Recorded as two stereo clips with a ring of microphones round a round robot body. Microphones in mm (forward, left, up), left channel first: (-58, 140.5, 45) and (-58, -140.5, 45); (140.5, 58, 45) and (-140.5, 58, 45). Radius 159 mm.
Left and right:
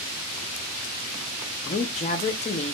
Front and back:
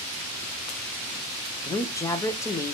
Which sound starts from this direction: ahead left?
A woman speaking, at 1.6 s.